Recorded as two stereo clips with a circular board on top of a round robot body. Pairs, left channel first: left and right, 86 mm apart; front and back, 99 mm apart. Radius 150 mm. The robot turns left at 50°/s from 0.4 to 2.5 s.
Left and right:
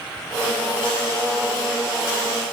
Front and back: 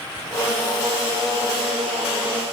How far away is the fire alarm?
I don't hear a fire alarm.